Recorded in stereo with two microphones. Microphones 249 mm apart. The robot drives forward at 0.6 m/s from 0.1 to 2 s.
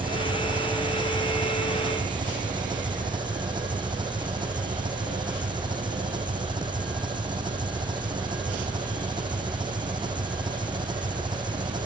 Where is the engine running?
20° right (ahead or behind).